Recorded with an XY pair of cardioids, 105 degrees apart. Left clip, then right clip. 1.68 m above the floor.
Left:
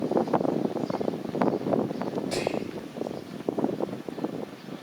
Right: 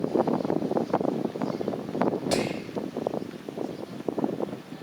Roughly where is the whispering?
Ahead right.